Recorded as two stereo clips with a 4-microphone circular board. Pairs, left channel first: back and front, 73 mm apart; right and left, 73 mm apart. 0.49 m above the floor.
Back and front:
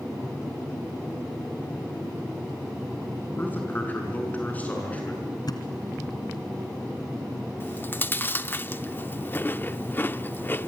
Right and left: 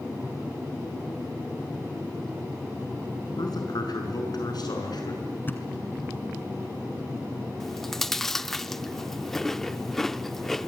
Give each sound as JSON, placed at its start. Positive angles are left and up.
{"t": 3.4, "sound": "a man speaking", "azimuth_deg": -115, "distance_m": 6.0}
{"t": 5.5, "sound": "a thud", "azimuth_deg": -150, "distance_m": 2.0}
{"t": 7.6, "sound": "chewing", "azimuth_deg": -170, "distance_m": 0.5}